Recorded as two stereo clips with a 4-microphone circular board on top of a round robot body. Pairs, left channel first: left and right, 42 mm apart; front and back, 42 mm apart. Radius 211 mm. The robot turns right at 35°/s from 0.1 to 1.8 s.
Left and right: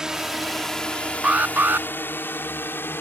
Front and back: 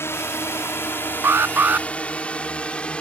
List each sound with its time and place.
0.0 s a drone: 15° right; by 3.0 s 65° left
1.2 s an alarm: 150° right; by 1.9 s 130° right